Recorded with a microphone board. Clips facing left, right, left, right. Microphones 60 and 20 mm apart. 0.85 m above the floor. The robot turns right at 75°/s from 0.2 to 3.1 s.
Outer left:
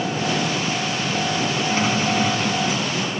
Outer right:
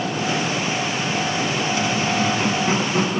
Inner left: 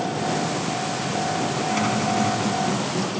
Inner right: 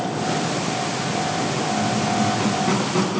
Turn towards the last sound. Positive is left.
turn(degrees=-115)